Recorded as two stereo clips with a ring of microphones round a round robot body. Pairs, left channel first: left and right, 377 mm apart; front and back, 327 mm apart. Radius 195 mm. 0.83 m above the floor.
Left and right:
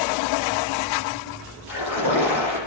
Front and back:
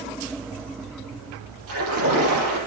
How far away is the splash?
About 8.5 m.